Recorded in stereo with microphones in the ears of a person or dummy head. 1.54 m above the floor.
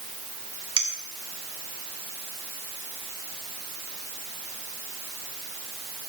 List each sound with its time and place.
0.8 s a clink: 30° right (ahead or behind), 2.5 m